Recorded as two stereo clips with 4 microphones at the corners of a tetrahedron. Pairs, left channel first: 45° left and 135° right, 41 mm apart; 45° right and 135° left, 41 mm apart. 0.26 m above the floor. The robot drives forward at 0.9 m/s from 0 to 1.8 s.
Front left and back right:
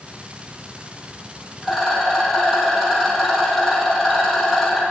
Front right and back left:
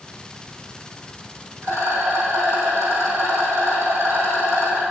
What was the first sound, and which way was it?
A rattle, 145° left.